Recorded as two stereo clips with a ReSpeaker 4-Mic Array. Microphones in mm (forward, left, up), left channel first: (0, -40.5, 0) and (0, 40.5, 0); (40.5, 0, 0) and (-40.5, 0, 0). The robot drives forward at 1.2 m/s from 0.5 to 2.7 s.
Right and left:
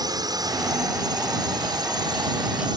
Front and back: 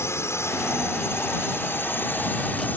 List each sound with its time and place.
0.0 s a drone: 55° left; by 2.8 s 65° left